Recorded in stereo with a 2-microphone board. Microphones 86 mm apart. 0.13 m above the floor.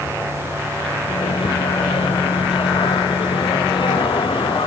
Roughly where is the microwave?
Left.